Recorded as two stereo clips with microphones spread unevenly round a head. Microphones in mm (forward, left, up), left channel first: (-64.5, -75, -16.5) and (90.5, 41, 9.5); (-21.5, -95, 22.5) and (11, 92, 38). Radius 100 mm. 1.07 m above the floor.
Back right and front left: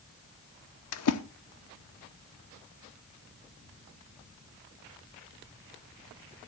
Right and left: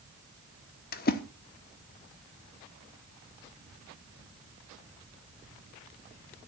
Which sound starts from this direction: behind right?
A splash, at 0.9 s.